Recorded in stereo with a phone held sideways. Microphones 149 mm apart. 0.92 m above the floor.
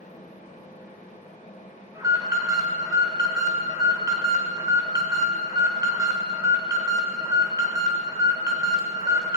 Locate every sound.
0.0 s a fan: 60° left (ahead or behind), 3 m
1.9 s an alarm: 25° right (ahead or behind), 2.5 m